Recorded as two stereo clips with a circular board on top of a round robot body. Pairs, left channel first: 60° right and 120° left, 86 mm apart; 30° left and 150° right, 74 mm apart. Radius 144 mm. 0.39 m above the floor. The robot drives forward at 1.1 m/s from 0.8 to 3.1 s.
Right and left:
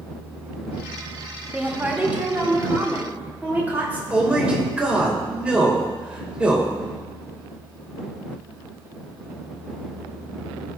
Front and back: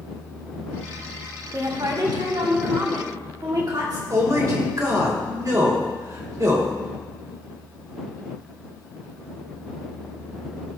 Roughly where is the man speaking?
Behind.